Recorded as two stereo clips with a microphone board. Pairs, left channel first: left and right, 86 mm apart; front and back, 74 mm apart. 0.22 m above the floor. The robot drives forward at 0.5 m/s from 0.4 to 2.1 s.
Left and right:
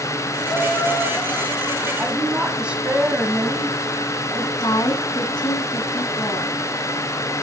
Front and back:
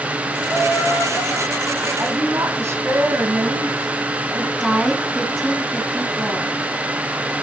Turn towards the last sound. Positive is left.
turn(degrees=85)